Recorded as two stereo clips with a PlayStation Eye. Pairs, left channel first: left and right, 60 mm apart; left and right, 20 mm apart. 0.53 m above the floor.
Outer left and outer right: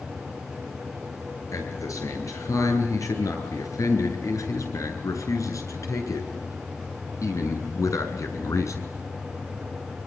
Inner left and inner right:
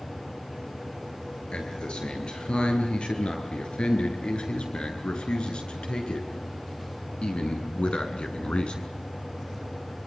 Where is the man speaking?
65° left (ahead or behind), 9.5 m; by 8.9 s 60° left (ahead or behind), 5 m.